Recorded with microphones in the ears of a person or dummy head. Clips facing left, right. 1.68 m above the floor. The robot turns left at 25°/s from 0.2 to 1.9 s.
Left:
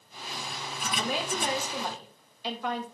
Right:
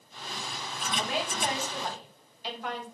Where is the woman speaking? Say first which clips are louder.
Left 1 dB; 80° left, 3 m; by 2.9 s 75° left (ahead or behind), 3 m.